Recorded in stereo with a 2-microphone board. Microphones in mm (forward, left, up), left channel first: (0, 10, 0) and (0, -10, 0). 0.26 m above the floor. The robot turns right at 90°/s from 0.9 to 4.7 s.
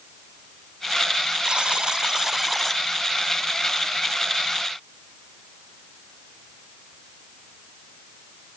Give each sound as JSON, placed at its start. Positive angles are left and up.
{"t": 1.4, "sound": "a buzzer", "azimuth_deg": -110, "distance_m": 0.8}